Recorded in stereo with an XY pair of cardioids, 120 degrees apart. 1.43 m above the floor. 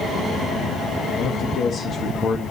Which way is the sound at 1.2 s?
50° left.